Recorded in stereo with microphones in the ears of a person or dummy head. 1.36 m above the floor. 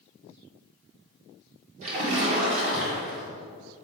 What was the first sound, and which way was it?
A splash, 40° right (ahead or behind).